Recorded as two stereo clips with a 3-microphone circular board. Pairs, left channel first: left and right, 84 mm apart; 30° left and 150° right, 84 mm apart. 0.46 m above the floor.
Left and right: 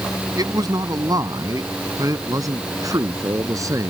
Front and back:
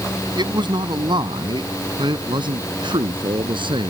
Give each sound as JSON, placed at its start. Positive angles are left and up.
{"t": 0.4, "sound": "a man speaking", "azimuth_deg": -130}